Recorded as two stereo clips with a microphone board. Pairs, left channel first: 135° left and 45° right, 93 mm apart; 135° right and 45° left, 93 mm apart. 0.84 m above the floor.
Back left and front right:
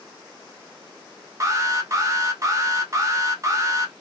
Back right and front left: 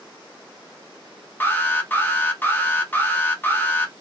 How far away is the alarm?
About 0.8 m.